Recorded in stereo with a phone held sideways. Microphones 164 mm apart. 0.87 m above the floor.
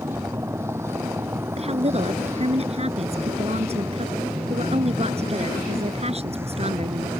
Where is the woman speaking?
40° right (ahead or behind).